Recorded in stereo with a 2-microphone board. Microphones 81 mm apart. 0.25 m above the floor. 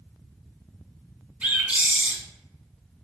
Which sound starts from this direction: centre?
A bird, at 1.4 s.